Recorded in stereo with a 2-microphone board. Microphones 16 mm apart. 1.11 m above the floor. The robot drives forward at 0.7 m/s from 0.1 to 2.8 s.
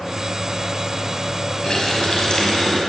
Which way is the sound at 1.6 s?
60° left (ahead or behind).